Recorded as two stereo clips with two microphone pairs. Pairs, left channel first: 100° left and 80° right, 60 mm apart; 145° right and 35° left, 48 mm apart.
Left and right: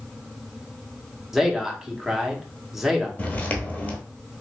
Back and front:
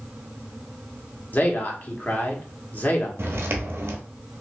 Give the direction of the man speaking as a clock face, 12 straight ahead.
5 o'clock.